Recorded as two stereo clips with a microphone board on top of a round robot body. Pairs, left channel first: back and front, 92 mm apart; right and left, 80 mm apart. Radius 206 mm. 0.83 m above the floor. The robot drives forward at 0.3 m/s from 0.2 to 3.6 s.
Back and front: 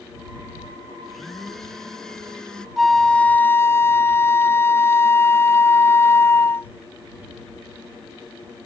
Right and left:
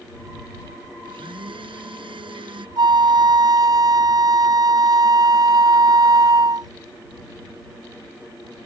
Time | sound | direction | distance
1.0 | a blender | 95° left | ?
2.8 | a flute | 90° left | ?